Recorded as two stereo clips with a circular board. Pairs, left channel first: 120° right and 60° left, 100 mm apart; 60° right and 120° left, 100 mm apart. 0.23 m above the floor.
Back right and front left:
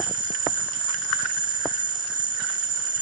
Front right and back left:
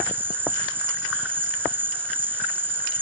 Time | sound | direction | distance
0.0 | an insect | 55° left | ?